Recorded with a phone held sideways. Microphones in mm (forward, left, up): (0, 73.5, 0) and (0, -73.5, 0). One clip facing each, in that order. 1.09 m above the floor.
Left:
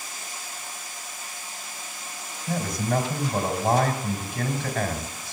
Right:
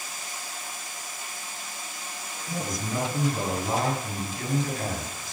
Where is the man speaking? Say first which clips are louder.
Left 5 dB; 70° left (ahead or behind), 4 m.